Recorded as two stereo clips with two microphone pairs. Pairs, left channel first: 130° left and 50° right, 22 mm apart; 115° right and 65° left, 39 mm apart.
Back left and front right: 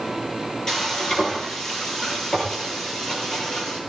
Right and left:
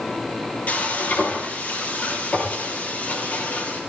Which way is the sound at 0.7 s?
165° right.